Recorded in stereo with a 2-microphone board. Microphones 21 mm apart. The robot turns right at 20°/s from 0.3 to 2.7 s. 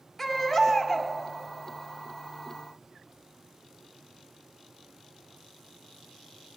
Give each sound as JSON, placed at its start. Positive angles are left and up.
{"t": 0.2, "sound": "a baby crying", "side_deg": 10, "distance_m": 1.2}